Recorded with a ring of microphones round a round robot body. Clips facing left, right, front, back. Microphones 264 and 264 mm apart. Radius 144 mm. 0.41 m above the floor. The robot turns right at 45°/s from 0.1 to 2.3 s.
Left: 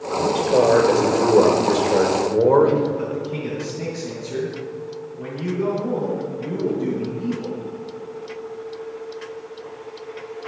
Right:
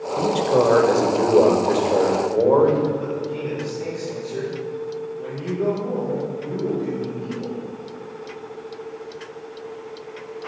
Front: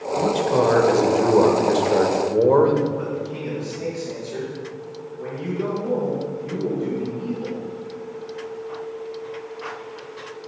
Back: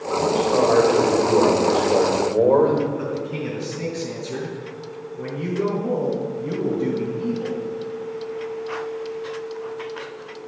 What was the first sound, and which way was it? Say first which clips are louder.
A man speaking: left 1 dB, back 1 dB; 40° right.